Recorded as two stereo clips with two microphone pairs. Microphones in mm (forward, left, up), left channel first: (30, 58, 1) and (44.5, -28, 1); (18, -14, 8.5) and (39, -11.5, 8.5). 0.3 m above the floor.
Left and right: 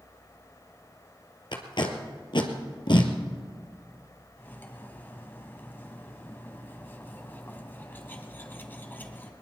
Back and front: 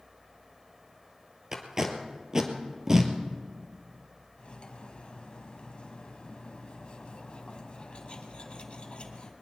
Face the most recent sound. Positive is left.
turn(degrees=160)